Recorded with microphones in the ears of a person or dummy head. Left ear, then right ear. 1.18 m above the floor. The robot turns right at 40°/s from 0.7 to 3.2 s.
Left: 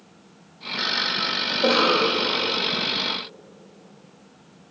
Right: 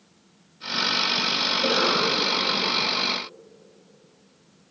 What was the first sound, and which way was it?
A cough, 30° left.